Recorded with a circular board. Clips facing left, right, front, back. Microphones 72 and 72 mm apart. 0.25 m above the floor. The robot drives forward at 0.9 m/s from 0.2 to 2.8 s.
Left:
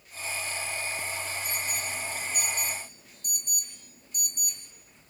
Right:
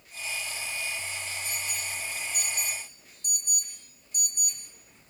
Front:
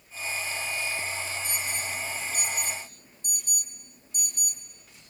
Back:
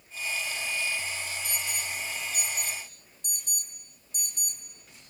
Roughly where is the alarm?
Ahead left.